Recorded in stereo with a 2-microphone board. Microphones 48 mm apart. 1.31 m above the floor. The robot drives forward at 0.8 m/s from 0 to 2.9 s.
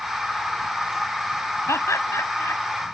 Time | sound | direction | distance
1.7 | laughter | 70° left (ahead or behind) | ?